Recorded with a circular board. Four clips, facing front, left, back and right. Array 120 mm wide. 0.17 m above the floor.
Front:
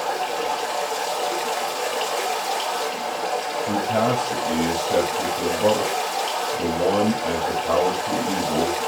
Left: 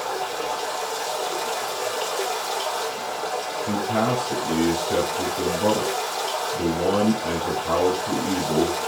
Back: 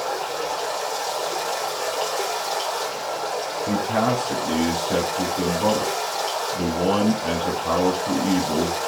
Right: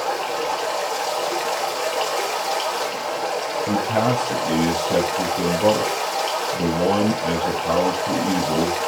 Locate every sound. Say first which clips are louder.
0.0 s running water: right 4 dB, front 2 dB; 65° right, 1.6 m
3.7 s a man speaking: right 2 dB, even; 140° right, 2 m